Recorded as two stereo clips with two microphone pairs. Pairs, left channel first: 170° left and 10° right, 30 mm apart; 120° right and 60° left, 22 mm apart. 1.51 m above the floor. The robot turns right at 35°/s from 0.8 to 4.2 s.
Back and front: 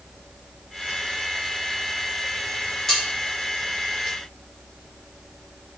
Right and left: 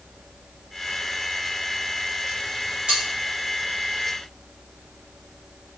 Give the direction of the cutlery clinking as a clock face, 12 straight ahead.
9 o'clock.